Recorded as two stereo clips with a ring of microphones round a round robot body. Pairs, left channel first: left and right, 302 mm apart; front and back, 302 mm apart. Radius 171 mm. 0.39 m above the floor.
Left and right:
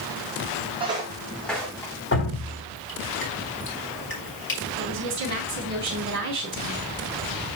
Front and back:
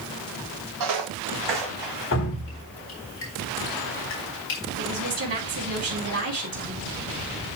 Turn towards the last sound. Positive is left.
turn(degrees=-140)